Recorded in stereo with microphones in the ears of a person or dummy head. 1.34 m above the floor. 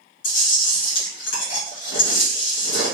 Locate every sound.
0.2 s chewing: 70° left (ahead or behind), 1.3 m